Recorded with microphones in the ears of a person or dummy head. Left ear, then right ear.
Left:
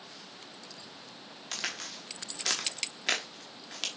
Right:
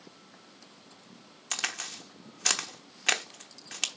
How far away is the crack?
About 1.0 m.